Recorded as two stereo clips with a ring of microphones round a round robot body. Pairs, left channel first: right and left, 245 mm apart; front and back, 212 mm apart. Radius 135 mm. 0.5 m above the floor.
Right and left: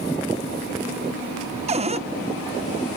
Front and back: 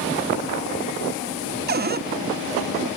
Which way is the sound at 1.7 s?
150° left.